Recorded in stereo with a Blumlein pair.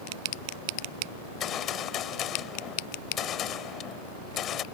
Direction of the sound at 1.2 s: 30° left.